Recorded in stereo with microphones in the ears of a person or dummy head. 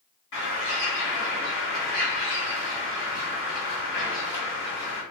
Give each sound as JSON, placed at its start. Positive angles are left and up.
{"t": 0.3, "sound": "a bird", "side_deg": 60, "distance_m": 1.6}